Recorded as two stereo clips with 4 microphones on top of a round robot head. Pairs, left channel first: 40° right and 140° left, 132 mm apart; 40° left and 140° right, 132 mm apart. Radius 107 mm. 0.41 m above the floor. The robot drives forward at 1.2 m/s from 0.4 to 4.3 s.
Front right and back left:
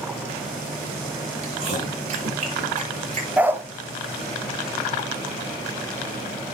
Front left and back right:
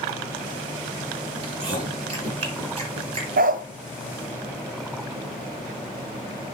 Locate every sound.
1.4 s chewing: 170° left, 4.5 m; by 3.5 s 175° left, 7 m
3.4 s a dog barking: 140° right, 0.9 m; by 3.6 s 150° right, 1.2 m